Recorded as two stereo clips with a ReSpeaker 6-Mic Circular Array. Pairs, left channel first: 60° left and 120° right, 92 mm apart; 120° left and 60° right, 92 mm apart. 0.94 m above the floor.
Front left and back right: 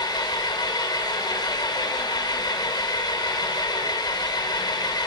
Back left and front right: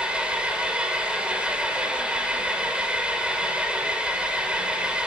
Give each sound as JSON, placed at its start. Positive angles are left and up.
{"t": 0.0, "sound": "an engine running", "azimuth_deg": 20, "distance_m": 2.5}